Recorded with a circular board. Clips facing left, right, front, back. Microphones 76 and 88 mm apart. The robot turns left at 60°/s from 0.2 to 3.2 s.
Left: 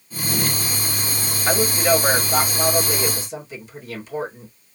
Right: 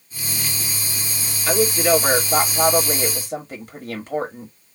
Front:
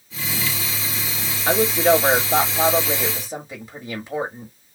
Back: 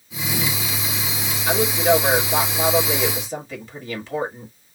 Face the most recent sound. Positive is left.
turn(degrees=-75)